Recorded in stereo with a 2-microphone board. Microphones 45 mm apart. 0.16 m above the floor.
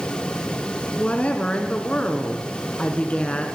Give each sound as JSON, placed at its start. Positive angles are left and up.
{"t": 1.0, "sound": "a woman speaking", "side_deg": 30, "distance_m": 1.5}